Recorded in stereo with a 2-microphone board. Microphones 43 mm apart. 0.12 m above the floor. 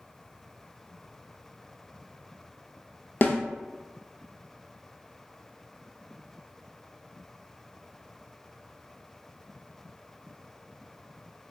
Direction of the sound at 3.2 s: 45° left (ahead or behind).